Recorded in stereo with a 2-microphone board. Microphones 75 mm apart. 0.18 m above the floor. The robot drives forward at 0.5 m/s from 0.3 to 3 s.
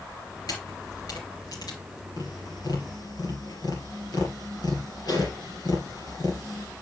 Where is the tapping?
65° left (ahead or behind), 4 m.